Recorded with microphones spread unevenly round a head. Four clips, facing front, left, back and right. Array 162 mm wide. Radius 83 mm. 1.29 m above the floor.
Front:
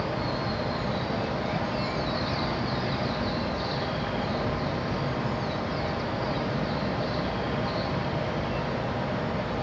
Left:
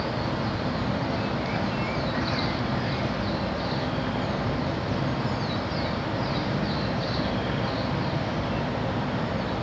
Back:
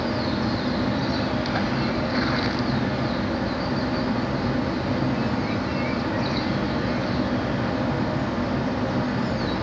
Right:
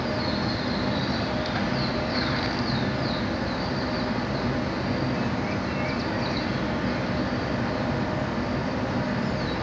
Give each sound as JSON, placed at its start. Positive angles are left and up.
{"t": 0.0, "sound": "a fan", "azimuth_deg": -165, "distance_m": 9.0}